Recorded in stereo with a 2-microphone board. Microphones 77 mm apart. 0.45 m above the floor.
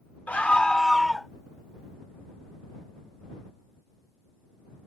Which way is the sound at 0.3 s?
20° left (ahead or behind).